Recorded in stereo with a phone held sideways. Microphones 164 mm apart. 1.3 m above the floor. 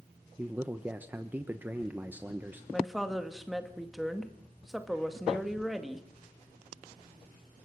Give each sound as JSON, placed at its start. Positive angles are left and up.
{"t": 0.4, "sound": "a man speaking", "side_deg": -10, "distance_m": 1.2}
{"t": 2.7, "sound": "a woman speaking", "side_deg": 0, "distance_m": 1.9}